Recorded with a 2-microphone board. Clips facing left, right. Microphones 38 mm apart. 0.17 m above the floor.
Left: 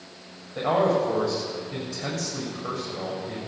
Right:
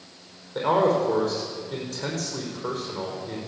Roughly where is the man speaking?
Right.